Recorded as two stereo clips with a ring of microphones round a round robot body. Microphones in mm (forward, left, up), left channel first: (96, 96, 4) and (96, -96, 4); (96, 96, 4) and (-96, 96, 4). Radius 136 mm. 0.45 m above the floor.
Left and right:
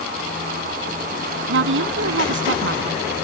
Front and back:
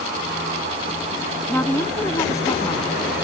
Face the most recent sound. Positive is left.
turn(degrees=-75)